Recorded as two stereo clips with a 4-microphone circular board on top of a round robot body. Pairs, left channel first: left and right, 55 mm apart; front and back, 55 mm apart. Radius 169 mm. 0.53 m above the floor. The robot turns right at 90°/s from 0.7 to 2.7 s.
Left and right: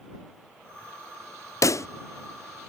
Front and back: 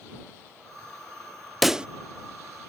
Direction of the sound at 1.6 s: 90° left.